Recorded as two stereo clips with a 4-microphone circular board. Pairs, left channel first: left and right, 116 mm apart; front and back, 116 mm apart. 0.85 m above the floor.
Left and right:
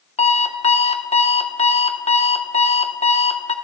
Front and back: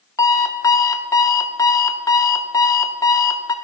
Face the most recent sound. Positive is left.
turn(degrees=60)